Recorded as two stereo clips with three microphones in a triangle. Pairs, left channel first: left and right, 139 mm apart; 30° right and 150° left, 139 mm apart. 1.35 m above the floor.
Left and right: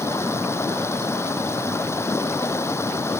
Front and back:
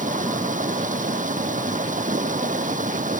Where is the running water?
160° left.